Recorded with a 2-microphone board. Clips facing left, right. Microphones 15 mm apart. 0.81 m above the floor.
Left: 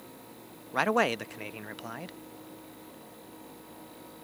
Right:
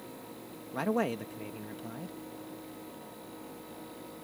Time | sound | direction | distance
0.7 | a man speaking | 45° left (ahead or behind) | ?